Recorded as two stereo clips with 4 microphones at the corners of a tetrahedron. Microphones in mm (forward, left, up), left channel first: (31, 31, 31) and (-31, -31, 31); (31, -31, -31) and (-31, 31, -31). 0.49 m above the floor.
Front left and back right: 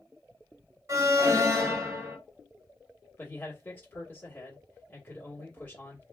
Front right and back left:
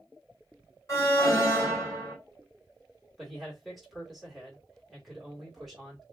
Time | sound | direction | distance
0.9 | an alarm | 90° right | 3 m
3.2 | a man speaking | 40° left | 1.4 m